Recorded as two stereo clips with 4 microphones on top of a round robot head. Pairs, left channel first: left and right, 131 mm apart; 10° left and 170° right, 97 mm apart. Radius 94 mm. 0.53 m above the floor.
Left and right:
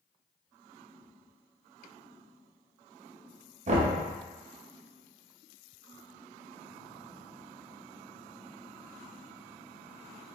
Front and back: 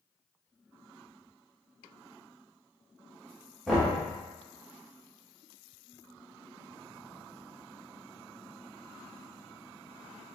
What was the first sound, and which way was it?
Knocking, 80° right.